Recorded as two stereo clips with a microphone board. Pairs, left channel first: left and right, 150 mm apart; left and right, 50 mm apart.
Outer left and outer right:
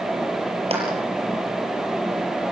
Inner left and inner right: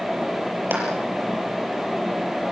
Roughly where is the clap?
Right.